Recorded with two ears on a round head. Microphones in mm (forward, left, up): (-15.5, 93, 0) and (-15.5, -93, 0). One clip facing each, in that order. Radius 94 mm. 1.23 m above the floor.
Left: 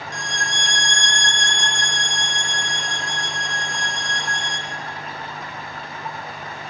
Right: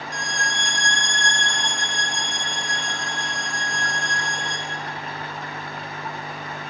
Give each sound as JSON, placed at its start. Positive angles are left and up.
{"t": 0.1, "sound": "a violin", "side_deg": -70, "distance_m": 0.9}